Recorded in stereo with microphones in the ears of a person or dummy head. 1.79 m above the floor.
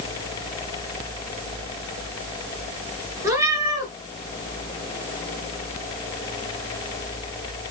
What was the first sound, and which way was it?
A cat meowing, 15° right (ahead or behind).